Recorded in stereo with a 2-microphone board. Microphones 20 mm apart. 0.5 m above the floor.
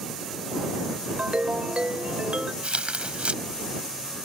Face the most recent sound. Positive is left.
turn(degrees=-70)  # may be behind; listen again after turning